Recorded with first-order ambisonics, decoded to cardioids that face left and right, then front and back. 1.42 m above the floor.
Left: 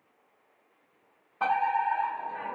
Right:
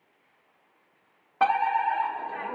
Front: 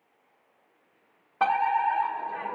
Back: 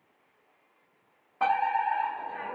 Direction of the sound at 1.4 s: 60° right.